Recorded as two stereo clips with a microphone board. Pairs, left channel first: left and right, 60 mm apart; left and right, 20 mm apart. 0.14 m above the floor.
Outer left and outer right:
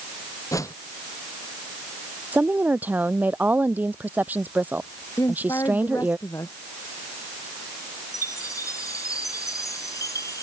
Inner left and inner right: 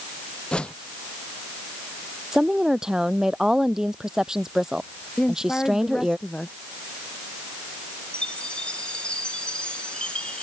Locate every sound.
0.5 s a whoosh: 60° left (ahead or behind)
2.3 s a woman speaking: 25° right (ahead or behind)
5.2 s a woman speaking: 55° left (ahead or behind)
8.1 s a chime: 60° left (ahead or behind)